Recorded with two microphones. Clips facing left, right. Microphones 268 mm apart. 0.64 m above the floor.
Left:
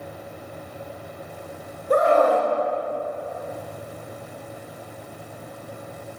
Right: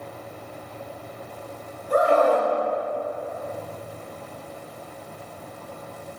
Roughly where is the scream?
Left.